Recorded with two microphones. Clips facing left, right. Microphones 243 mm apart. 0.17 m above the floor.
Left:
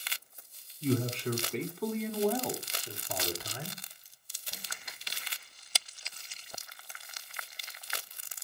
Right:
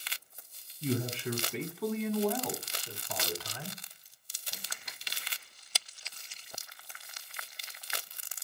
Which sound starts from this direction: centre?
A man speaking, at 0.8 s.